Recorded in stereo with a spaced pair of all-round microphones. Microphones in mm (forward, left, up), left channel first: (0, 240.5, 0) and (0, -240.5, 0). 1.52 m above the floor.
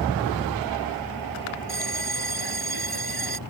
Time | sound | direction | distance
1.7 | a bell | 55° left (ahead or behind) | ?